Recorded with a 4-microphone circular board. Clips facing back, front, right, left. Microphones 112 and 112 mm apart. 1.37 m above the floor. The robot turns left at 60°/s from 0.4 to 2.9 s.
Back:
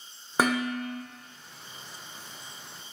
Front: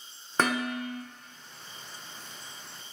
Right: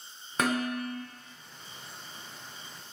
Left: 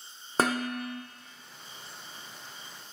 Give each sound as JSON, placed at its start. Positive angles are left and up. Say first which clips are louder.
{"t": 0.4, "sound": "dishes clattering", "louder": "back 2 dB, left 1 dB", "azimuth_deg": 105, "distance_m": 0.6}